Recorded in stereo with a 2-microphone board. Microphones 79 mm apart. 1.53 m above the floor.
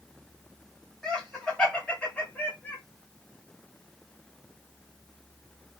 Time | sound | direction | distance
1.0 | laughter | 10° left (ahead or behind) | 2.5 m